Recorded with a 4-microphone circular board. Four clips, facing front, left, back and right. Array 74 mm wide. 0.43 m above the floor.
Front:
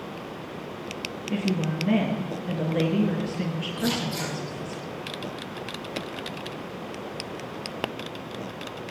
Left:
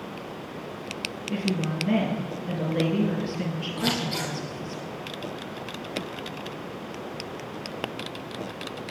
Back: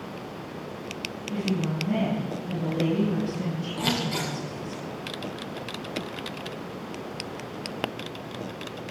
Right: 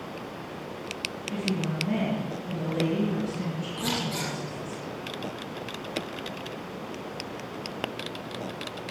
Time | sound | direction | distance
1.3 | a woman speaking | 25° left | 7.5 m
3.8 | scissors | 155° left | 6.5 m